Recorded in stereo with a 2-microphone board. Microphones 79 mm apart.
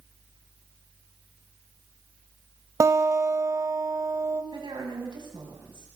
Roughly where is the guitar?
Right.